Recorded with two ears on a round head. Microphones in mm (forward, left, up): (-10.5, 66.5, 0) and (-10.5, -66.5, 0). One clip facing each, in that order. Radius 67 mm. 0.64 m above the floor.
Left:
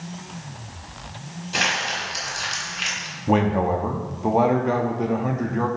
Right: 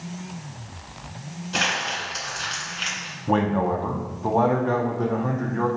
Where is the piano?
No piano in this recording.